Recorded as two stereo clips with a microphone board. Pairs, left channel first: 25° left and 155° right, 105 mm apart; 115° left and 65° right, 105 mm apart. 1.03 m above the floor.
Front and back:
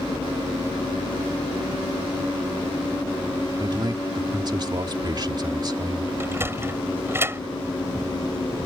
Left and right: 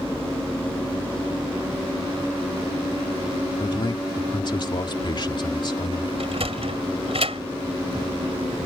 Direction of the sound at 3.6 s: 155° left.